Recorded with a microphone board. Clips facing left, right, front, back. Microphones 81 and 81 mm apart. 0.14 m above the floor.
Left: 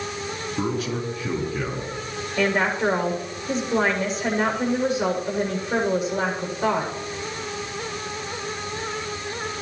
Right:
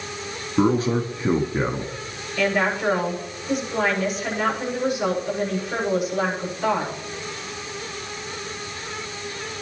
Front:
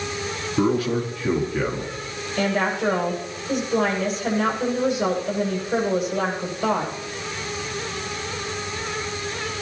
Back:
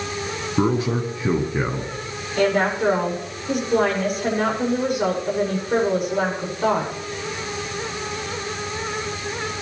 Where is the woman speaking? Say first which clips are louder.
Even, back 3 dB; 150° left, 7.5 m.